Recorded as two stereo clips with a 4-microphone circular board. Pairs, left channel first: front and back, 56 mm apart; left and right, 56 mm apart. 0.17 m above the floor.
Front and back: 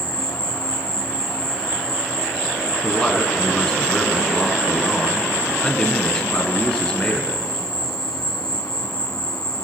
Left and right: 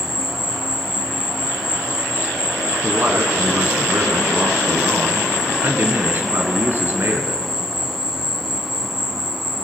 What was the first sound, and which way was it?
An insect, 10° right.